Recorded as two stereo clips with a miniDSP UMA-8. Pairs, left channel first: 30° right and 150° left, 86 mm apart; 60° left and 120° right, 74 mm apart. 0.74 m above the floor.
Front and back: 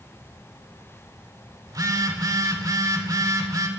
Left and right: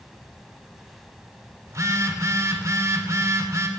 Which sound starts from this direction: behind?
A phone buzzing, at 1.7 s.